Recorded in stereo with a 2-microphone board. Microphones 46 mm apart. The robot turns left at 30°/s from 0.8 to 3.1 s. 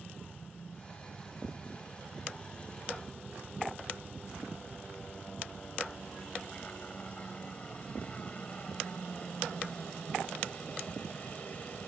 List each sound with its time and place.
0.0 s a helicopter: 65° left (ahead or behind); by 11.9 s 35° left (ahead or behind)